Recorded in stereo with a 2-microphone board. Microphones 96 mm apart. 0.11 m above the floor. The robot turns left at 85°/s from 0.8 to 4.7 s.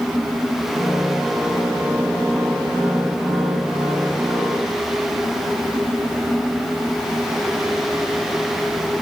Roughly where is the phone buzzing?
No phone buzzing in this recording.